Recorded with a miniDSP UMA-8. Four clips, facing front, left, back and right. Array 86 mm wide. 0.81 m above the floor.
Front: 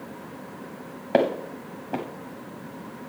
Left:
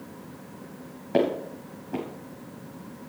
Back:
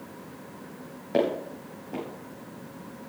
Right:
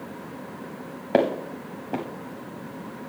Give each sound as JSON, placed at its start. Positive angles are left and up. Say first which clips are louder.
{"t": 1.1, "sound": "footsteps", "louder": "right 2 dB, front 3 dB", "azimuth_deg": -55, "distance_m": 1.7}